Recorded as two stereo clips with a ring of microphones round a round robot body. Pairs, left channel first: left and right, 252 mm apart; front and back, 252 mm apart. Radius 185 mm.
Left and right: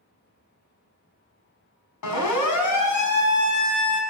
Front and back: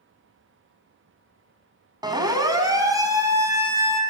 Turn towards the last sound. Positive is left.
turn(degrees=100)